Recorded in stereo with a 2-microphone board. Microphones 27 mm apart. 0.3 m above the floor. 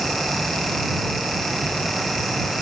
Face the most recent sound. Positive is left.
No sound to turn to.